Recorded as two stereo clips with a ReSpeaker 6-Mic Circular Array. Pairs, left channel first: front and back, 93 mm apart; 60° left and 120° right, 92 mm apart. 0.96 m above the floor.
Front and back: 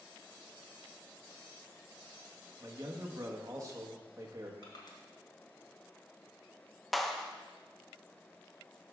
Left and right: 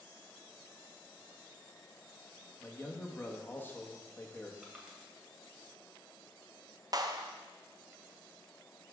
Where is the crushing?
40° right, 1.7 m.